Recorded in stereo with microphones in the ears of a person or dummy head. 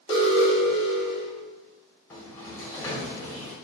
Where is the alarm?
25° left (ahead or behind), 1.9 m.